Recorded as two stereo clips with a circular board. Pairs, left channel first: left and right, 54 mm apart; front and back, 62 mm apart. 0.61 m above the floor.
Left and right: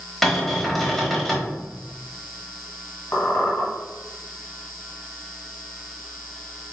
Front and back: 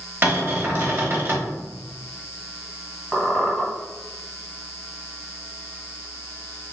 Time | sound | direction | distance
0.2 | a cupboard door | 170° left | 1.1 m
3.1 | a squeak | 75° left | 1.2 m